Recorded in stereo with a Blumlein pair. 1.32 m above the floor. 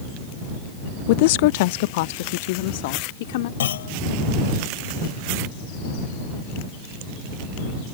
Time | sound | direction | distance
1.1 | a woman speaking | 50° left | ?
3.6 | a clunk | 60° left | ?